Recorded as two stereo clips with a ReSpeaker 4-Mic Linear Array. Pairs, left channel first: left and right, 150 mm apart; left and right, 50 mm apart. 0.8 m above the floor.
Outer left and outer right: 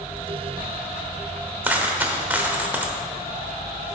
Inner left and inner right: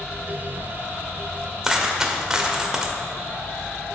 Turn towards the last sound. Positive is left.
turn(degrees=-10)  # may be behind; listen again after turning